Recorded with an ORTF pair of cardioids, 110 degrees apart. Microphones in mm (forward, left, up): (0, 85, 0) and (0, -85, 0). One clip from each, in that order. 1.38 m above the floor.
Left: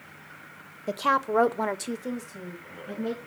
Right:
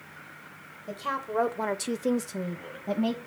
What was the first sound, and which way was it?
A woman speaking, 50° left.